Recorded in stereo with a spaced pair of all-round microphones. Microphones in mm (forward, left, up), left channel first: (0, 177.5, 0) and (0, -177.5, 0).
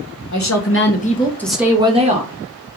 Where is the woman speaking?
55° left (ahead or behind), 1.2 m; by 2.3 s 25° right (ahead or behind), 1.5 m.